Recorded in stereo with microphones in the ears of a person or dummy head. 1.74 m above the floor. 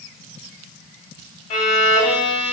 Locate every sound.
1.5 s a violin: 40° left (ahead or behind), 2.5 m